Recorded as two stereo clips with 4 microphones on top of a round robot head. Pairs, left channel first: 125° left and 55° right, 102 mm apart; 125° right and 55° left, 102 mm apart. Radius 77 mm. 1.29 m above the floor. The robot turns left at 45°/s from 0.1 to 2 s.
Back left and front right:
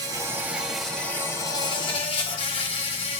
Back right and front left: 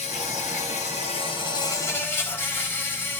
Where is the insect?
110° right, 4 m; by 3.2 s 165° left, 4 m.